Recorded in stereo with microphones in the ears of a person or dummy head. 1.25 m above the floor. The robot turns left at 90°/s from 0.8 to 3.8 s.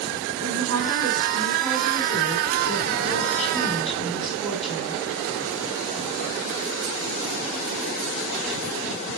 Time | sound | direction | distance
0.4 | a woman speaking | 90° right | 3.5 m